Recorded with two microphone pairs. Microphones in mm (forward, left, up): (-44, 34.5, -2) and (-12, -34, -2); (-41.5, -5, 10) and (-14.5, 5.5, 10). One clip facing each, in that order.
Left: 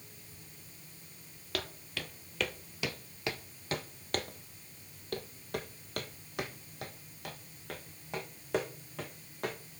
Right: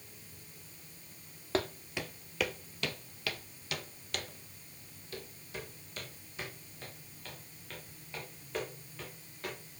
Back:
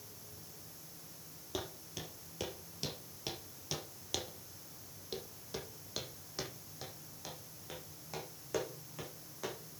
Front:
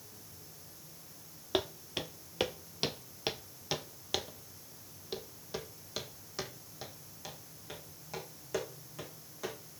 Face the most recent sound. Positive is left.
turn(degrees=115)